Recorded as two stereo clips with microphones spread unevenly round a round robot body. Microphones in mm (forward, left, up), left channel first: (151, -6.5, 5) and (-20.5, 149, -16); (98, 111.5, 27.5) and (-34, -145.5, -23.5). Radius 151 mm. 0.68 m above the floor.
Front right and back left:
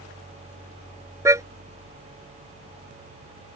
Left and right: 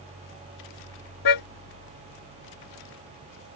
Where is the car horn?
60° left.